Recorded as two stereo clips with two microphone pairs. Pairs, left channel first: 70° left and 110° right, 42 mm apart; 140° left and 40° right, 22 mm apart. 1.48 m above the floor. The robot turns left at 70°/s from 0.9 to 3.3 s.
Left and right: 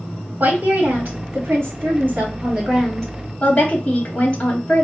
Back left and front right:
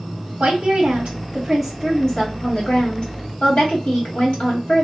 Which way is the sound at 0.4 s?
60° right.